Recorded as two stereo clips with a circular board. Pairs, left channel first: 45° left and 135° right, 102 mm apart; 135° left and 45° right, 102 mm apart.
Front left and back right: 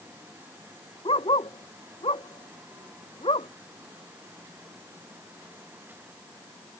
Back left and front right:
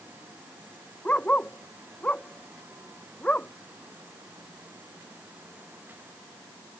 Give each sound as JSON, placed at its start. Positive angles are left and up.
{"t": 1.1, "sound": "a dog barking", "azimuth_deg": 60}